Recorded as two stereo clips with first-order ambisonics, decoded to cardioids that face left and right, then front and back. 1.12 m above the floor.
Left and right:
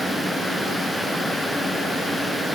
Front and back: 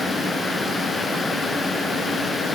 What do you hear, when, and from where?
Only background noise.